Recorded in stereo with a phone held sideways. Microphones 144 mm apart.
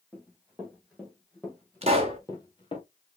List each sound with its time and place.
0.1 s running footsteps: 10° right (ahead or behind), 3 m; by 2.8 s 40° left (ahead or behind), 1.3 m
1.8 s a pop: 45° right (ahead or behind), 1.1 m